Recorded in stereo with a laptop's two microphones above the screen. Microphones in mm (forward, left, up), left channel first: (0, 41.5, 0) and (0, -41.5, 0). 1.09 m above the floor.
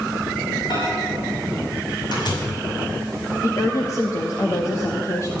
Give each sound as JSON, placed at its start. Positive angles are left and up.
{"t": 0.7, "sound": "a microwave", "side_deg": 65, "distance_m": 5.5}
{"t": 3.4, "sound": "a woman speaking", "side_deg": 40, "distance_m": 1.8}